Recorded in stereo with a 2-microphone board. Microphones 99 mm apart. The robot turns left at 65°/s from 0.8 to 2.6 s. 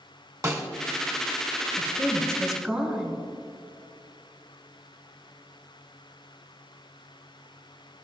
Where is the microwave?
I don't hear a microwave.